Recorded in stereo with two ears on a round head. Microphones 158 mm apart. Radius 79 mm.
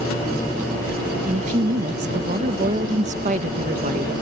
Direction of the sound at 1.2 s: 40° right (ahead or behind).